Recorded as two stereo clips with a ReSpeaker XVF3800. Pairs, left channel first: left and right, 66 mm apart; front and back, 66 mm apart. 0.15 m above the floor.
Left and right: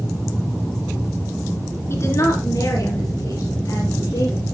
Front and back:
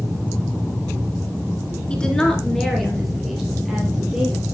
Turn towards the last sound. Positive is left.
turn(degrees=100)